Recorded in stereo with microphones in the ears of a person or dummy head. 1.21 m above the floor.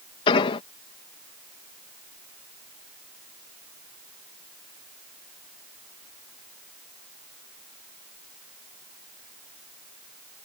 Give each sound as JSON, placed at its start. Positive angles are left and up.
{"t": 0.3, "sound": "an explosion", "side_deg": 30}